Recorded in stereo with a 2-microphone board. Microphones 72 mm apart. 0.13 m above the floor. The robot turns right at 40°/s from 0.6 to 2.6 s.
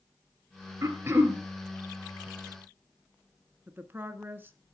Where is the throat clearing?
40° right (ahead or behind), 2 m; by 1.4 s 20° right (ahead or behind), 2 m.